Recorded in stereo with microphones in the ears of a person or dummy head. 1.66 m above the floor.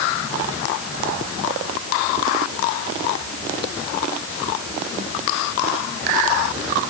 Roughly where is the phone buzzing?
No phone buzzing in this recording.